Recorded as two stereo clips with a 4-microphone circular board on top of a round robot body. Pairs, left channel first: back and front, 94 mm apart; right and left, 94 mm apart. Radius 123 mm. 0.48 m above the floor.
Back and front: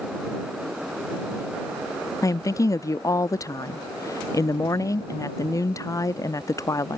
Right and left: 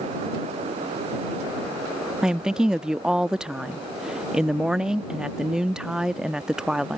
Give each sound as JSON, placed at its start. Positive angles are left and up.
{"t": 2.2, "sound": "a woman speaking", "azimuth_deg": 170}